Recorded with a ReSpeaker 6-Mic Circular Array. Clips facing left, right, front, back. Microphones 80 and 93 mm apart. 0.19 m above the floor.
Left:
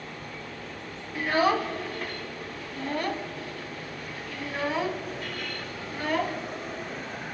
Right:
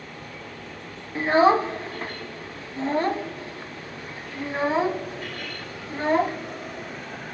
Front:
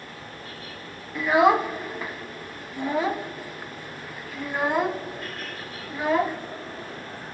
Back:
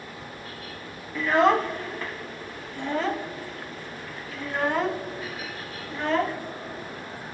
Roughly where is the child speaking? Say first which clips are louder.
Right 6 dB, front 2 dB; right.